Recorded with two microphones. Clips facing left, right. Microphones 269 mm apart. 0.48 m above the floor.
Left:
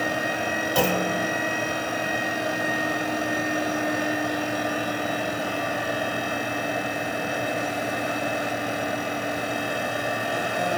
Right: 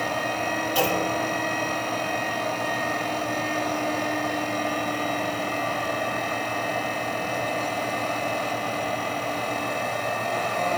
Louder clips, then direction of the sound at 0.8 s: Left 2 dB; 60° left (ahead or behind).